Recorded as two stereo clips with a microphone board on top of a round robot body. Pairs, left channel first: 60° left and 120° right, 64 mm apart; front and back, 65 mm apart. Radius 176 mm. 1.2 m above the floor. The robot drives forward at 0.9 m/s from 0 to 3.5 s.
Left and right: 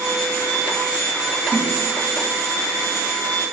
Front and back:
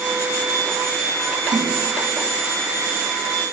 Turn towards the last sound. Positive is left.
turn(degrees=170)